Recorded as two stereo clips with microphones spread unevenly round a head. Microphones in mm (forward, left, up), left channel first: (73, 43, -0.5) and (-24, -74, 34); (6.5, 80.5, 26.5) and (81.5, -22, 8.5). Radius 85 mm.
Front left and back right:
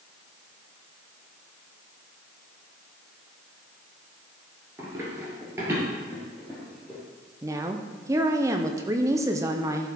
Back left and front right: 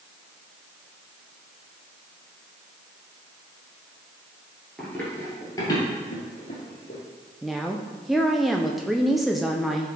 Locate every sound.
4.8 s running footsteps: 165° right, 1.9 m; by 7.0 s 160° left, 3.5 m
7.4 s a woman speaking: 155° right, 0.5 m